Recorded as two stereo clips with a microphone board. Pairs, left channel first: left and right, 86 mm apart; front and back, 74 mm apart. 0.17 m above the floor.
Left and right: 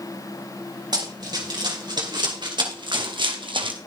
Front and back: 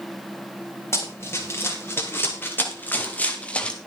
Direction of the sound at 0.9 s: 55° right.